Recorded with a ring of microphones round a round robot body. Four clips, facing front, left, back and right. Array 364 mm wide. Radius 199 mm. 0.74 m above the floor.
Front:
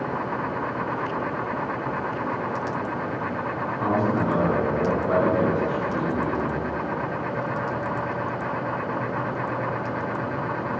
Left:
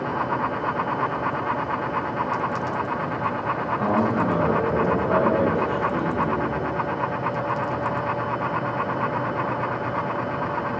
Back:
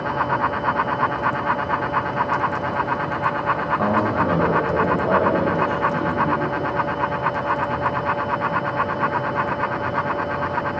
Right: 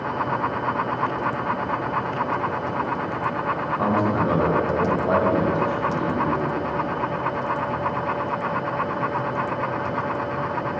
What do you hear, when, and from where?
3.8 s a man speaking: 155° right, 4 m; by 6.5 s 135° right, 5 m